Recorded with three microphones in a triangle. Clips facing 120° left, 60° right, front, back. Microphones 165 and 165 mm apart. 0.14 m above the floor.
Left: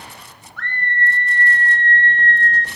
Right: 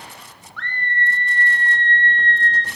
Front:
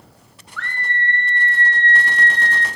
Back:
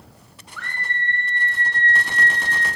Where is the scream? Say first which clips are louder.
Left 2 dB, front 4 dB; 105° left, 1.9 m.